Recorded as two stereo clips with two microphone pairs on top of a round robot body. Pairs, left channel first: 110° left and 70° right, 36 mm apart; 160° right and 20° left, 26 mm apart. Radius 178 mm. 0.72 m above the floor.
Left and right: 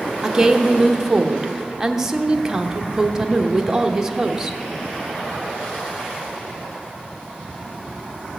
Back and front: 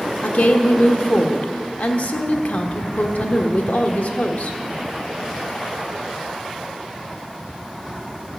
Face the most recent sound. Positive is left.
turn(degrees=-145)